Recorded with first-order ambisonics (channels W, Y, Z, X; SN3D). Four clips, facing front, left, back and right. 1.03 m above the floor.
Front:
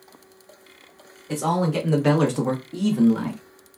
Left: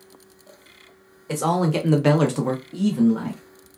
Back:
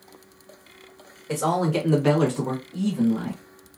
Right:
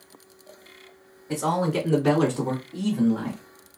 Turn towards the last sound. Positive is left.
turn(degrees=10)